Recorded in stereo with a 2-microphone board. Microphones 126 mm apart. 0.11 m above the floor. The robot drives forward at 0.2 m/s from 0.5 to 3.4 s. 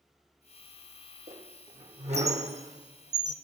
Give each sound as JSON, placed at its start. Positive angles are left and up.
{"t": 1.3, "sound": "a squeak", "side_deg": -55, "distance_m": 1.4}